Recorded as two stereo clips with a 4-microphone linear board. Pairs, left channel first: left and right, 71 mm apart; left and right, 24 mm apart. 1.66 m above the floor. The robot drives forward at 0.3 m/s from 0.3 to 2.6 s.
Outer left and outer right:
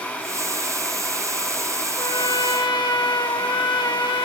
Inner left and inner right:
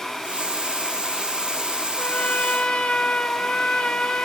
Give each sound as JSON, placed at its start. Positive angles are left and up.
{"t": 2.0, "sound": "a trumpet", "side_deg": 65, "distance_m": 1.9}